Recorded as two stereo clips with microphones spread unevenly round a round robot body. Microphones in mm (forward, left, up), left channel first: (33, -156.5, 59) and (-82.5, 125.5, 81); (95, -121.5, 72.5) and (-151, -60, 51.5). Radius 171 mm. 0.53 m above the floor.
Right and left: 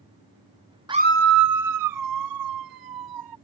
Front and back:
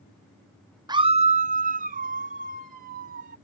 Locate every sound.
0.9 s a scream: straight behind; by 3.4 s 105° left